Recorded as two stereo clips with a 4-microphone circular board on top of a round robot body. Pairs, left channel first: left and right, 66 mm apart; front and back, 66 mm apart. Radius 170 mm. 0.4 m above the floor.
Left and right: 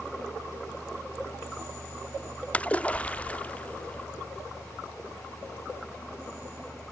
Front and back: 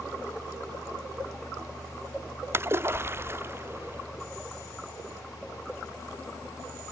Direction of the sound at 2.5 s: 150° left.